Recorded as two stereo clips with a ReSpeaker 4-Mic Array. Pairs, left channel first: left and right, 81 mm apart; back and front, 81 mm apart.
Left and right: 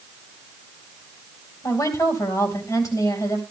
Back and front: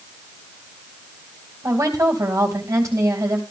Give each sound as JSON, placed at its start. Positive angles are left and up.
{"t": 1.6, "sound": "a woman speaking", "azimuth_deg": 50, "distance_m": 3.5}